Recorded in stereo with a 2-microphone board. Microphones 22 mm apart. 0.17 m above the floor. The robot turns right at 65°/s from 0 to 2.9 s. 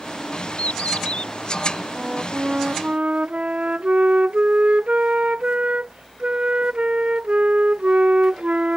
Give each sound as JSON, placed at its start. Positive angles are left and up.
{"t": 0.6, "sound": "a bird", "azimuth_deg": 80}
{"t": 1.9, "sound": "a flute", "azimuth_deg": -175}